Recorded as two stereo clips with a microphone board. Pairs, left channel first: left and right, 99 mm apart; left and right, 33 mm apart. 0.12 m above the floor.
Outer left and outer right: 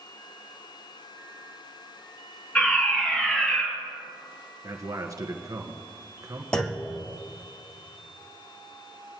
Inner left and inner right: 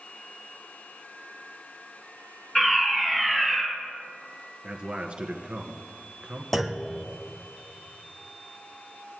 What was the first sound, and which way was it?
A fire alarm, 10° left (ahead or behind).